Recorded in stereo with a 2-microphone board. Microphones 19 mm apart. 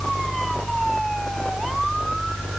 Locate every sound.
Only background noise.